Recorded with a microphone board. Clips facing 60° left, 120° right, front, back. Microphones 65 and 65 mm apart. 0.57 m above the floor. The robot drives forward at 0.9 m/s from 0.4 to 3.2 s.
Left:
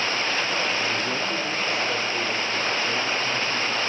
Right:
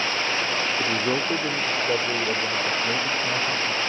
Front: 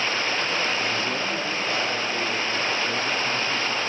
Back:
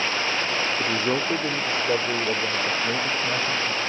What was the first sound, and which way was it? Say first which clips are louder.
A man speaking: right 2 dB, back 2 dB; 155° right.